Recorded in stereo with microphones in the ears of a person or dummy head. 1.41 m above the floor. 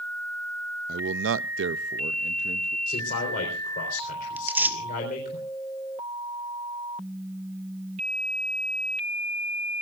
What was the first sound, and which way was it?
A man speaking, 45° right (ahead or behind).